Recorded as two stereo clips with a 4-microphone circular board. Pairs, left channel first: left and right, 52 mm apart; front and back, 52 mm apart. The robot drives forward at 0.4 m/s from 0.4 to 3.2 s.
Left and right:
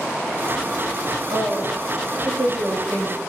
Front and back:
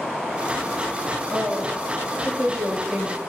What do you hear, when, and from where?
1.3 s a woman speaking: 100° right, 9.5 m